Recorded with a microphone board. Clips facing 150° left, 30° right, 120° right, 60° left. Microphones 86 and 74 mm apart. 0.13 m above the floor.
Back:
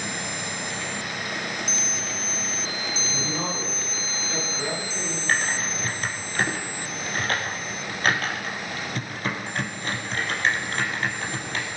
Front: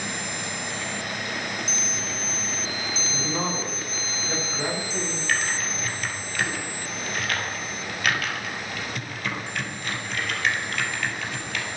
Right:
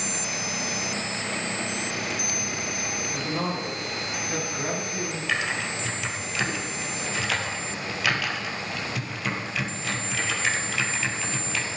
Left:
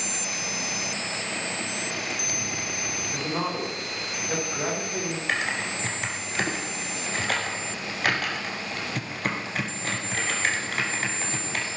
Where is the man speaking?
25° left, 8 m.